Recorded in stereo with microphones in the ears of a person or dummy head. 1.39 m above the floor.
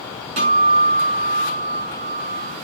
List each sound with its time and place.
0.4 s a guitar: 40° right (ahead or behind), 5.5 m